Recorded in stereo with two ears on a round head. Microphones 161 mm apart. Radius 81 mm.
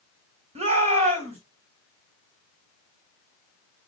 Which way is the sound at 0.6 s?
35° right (ahead or behind).